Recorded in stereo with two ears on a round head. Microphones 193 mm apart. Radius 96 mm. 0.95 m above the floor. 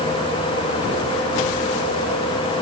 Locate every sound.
Only background noise.